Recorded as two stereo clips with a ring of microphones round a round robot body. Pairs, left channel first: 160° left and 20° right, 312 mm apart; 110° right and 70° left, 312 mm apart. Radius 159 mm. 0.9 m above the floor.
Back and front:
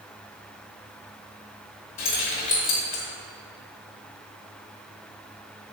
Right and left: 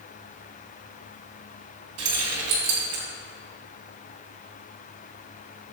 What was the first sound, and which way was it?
Keys jangling, 115° left.